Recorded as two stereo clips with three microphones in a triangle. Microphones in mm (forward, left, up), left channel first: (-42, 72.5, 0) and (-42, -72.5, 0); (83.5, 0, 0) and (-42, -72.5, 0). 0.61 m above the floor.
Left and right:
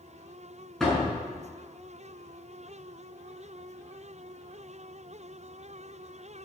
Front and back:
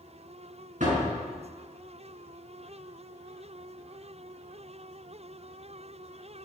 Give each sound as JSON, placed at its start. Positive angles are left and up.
{"t": 0.8, "sound": "a door slam", "azimuth_deg": 180, "distance_m": 6.0}